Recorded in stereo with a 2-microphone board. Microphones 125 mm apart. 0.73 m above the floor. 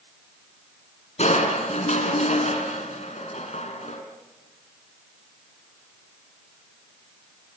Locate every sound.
1.2 s crushing: 65° left (ahead or behind), 3.5 m